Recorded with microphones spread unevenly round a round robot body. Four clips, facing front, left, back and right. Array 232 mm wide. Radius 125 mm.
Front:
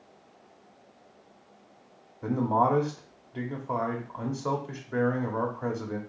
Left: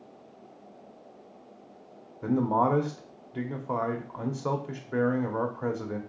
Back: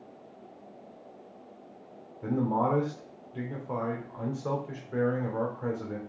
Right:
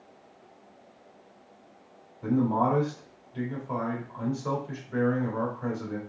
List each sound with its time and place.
2.2 s a man speaking: 75° left, 1.0 m